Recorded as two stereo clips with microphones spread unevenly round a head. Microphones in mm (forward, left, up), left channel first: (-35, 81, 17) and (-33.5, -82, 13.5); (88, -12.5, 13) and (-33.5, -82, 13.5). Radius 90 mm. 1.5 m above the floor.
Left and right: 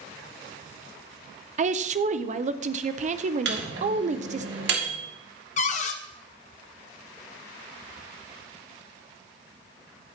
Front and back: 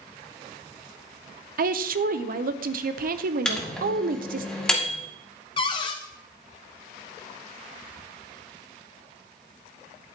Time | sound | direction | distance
1.6 | a woman speaking | 135° right | 0.8 m
3.5 | a microwave | 55° right | 2 m
5.6 | a cupboard door | 75° left | 0.7 m